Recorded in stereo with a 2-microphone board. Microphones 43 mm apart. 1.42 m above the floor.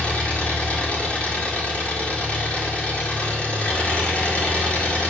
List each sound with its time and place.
0.0 s an engine running: 30° left (ahead or behind), 3.5 m